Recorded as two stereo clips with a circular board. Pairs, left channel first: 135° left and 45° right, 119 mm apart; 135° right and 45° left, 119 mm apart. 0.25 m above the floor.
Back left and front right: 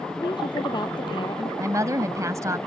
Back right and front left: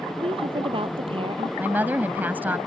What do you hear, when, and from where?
0.2 s a woman speaking: 85° left
1.6 s a woman speaking: 15° right